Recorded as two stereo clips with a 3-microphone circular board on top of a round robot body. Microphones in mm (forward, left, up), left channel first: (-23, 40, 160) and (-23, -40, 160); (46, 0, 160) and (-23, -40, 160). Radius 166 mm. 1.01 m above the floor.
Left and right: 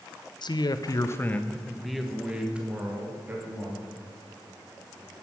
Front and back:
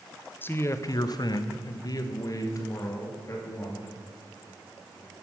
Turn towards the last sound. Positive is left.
turn(degrees=-25)